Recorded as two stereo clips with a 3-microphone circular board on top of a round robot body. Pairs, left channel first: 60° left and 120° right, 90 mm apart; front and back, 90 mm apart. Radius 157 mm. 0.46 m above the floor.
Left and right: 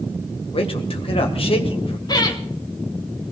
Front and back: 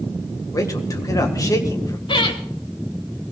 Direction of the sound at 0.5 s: 55° left.